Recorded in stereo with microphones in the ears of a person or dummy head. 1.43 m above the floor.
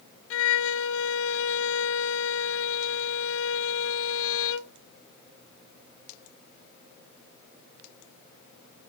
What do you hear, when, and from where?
0.3 s a violin: 75° left (ahead or behind), 0.7 m